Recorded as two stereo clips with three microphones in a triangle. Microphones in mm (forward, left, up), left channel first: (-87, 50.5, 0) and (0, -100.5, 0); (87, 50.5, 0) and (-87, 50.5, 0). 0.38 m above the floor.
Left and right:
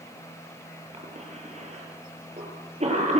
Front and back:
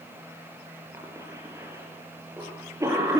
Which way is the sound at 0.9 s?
110° right.